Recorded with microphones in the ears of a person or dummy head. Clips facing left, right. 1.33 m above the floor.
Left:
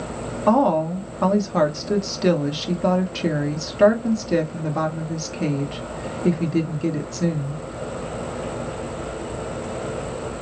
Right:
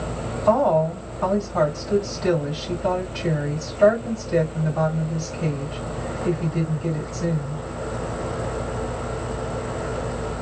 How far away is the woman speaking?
About 1.3 m.